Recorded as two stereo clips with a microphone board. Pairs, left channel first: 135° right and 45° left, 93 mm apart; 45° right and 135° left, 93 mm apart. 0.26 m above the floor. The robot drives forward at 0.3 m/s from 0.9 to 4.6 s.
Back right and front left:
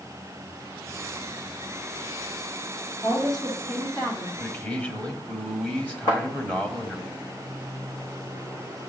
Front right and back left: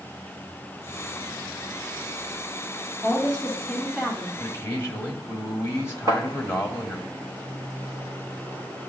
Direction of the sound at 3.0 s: 130° right.